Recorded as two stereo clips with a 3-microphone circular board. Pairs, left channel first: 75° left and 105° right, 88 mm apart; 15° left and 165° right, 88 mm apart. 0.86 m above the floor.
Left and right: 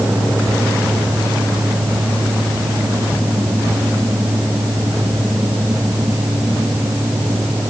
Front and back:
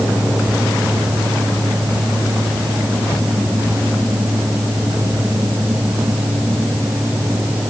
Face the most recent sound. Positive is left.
No sound to turn to.